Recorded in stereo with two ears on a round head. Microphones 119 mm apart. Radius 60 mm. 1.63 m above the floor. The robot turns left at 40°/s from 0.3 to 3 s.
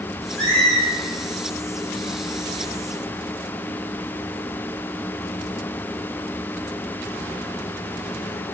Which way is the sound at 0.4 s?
5° left (ahead or behind).